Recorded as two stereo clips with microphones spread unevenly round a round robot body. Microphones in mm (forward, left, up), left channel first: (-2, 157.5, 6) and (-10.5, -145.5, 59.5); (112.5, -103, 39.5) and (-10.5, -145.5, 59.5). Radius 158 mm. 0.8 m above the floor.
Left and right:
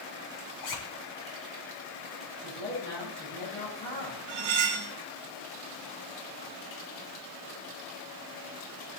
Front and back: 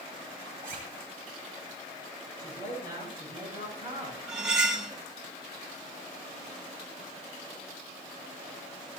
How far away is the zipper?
About 2.5 m.